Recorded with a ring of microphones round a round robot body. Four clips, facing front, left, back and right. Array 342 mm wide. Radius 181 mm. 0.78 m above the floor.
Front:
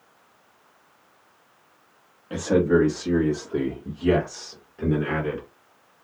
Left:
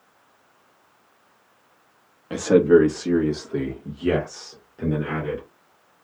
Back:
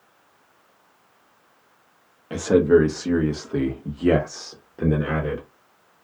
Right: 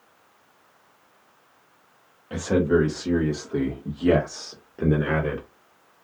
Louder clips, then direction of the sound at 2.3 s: Left 6 dB, back 4 dB; 115° left.